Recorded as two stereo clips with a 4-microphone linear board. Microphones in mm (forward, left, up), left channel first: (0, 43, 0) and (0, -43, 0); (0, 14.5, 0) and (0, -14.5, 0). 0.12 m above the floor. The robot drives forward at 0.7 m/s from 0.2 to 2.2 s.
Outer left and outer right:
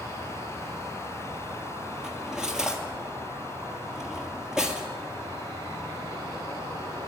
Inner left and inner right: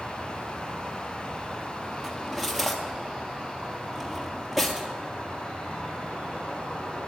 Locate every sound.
0.0 s an insect: 65° right (ahead or behind), 5.5 m; by 7.1 s 50° right (ahead or behind), 6.5 m
2.0 s cutlery clinking: 5° right (ahead or behind), 1.6 m